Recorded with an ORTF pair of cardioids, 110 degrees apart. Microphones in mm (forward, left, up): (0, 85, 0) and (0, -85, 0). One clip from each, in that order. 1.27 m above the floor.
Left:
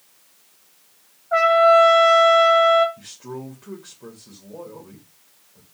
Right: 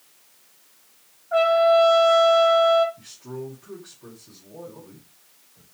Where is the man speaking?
70° left, 2.5 m.